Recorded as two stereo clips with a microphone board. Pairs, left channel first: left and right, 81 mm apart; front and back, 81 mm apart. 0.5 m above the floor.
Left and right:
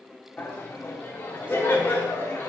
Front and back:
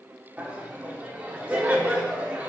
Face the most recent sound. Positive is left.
turn(degrees=120)